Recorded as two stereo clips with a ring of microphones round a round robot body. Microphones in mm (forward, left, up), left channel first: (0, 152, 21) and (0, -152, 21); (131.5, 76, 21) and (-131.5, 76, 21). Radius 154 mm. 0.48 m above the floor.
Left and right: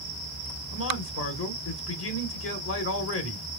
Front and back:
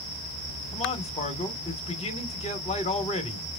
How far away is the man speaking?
About 1.4 m.